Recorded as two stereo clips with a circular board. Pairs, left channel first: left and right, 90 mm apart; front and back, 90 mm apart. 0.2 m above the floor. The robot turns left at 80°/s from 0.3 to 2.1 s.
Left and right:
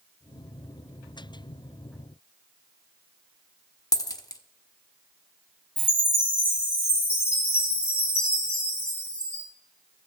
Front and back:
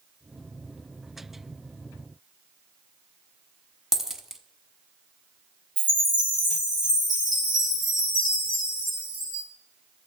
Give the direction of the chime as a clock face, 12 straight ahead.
7 o'clock.